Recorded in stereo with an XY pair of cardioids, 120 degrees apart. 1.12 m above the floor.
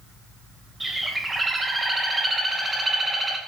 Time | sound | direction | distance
0.8 | a bird | 15° right | 2 m